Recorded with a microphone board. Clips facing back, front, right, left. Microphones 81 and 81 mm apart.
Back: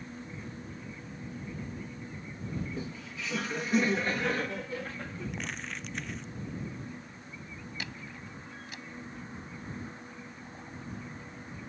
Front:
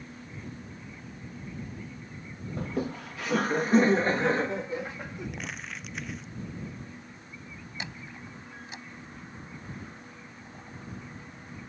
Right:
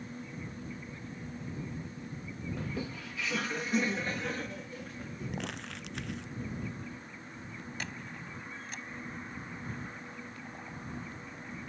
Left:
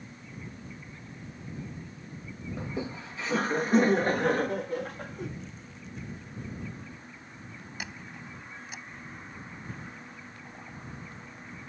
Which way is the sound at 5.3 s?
85° right.